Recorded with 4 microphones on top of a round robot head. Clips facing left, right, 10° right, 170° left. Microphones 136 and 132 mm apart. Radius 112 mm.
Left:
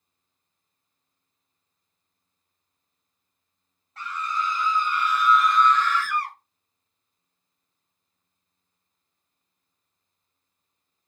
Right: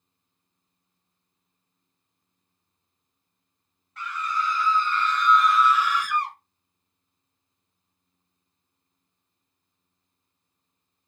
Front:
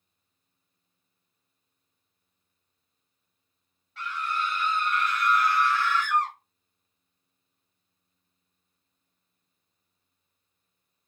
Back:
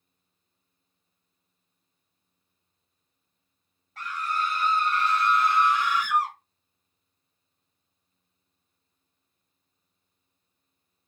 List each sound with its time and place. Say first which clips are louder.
4.0 s a scream: even, back 1 dB; 140° left, 1.4 m; by 6.3 s 110° right, 1.1 m